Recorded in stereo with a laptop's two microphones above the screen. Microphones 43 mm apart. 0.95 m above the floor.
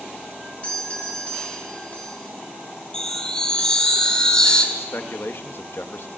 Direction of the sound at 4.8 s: 65° left (ahead or behind).